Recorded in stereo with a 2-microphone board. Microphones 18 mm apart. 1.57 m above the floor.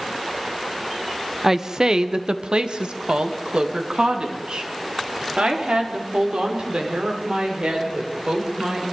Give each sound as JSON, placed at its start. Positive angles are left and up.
{"t": 1.4, "sound": "a woman speaking", "side_deg": -20, "distance_m": 0.8}